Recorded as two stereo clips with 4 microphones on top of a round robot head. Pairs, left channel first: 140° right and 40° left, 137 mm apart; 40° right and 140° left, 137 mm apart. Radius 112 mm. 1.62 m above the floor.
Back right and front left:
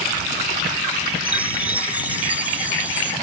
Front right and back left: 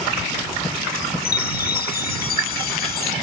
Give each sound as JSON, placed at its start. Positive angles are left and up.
{"t": 1.2, "sound": "a chime", "azimuth_deg": -40}